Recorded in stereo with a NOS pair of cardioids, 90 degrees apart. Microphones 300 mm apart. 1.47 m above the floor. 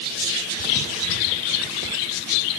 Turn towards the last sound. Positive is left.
No sound to turn to.